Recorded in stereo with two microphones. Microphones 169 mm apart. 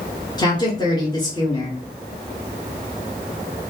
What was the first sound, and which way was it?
A woman speaking, 25° left (ahead or behind).